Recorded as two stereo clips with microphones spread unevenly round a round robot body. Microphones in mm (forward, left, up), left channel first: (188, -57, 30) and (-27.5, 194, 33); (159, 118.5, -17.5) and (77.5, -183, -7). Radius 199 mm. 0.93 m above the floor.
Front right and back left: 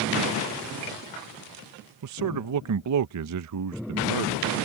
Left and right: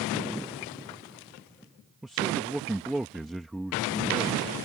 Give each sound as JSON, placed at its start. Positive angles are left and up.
{"t": 2.0, "sound": "a man speaking", "azimuth_deg": 165}